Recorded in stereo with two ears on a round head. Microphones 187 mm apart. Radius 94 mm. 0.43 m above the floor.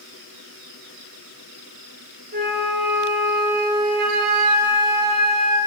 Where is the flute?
40° right (ahead or behind), 3 m.